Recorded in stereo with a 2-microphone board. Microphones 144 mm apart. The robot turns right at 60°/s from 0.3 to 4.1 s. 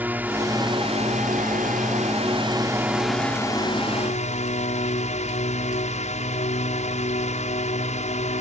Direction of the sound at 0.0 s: 165° right.